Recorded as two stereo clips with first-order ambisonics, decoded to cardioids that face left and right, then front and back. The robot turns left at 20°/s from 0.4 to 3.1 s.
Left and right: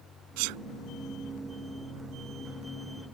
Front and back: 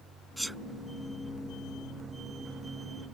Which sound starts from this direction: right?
A sneeze, at 0.4 s.